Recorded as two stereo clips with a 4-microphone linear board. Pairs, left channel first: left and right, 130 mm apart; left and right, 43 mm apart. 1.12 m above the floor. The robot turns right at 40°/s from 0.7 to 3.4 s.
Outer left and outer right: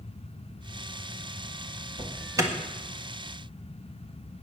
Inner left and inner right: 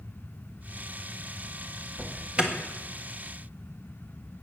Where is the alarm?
40° right (ahead or behind), 1.5 m; by 2.5 s 20° right (ahead or behind), 1.5 m.